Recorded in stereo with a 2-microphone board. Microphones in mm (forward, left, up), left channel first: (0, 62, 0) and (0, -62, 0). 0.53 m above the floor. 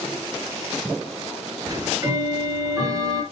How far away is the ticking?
About 2.5 m.